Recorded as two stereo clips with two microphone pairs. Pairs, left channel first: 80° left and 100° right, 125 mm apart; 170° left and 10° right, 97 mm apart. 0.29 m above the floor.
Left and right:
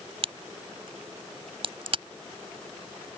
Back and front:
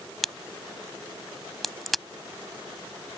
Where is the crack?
105° right.